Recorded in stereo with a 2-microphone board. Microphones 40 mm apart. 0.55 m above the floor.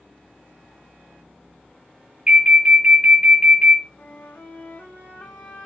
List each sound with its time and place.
2.3 s an alarm: 25° right (ahead or behind), 1.6 m
4.0 s a flute: 50° left (ahead or behind), 1.0 m